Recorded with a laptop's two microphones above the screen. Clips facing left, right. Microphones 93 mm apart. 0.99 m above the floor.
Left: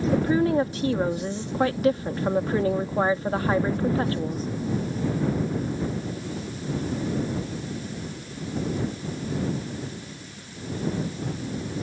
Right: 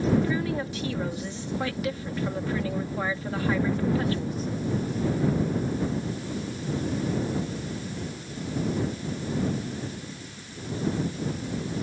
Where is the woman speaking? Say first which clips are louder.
Left 4 dB; 40° left (ahead or behind).